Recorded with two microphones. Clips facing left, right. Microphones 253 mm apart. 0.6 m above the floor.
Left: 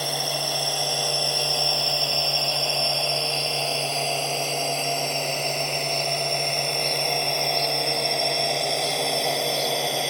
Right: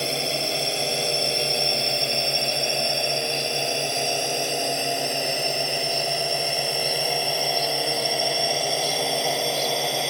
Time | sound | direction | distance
0.0 | a drone | 25° right (ahead or behind) | ?